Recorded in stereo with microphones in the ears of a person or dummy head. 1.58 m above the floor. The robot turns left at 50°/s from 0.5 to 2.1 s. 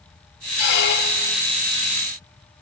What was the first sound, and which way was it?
A squeak, 75° left.